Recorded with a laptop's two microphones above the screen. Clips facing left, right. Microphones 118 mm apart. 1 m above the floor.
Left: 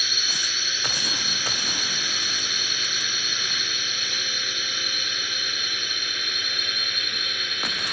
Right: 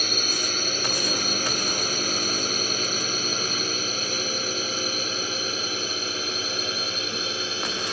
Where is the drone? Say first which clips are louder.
Right 6 dB; 45° right (ahead or behind); by 7.9 s 30° right (ahead or behind).